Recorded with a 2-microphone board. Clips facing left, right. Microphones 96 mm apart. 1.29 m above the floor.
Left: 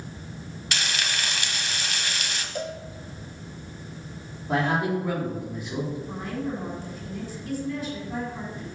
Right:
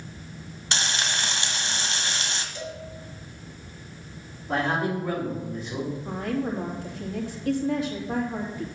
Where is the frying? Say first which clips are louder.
Right 1 dB; 30° right (ahead or behind), 1.2 m.